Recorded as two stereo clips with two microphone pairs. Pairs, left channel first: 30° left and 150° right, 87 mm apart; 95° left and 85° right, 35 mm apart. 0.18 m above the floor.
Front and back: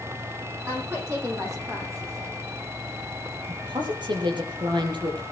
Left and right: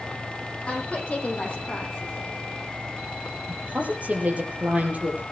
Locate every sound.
0.7 s a woman speaking: 150° left, 8 m; by 2.4 s 160° left, 7.5 m
3.5 s a woman speaking: 130° right, 4.5 m